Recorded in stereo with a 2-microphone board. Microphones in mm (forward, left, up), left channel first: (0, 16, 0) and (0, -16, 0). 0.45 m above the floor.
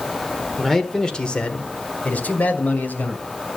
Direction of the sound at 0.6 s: 5° left (ahead or behind).